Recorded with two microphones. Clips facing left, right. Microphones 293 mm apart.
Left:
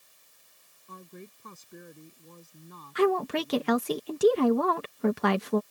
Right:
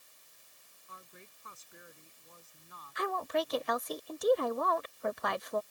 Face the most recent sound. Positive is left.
turn(degrees=85)